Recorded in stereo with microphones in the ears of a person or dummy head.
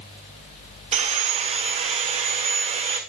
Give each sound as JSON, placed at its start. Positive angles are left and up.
{"t": 0.9, "sound": "sawing", "side_deg": -30, "distance_m": 1.2}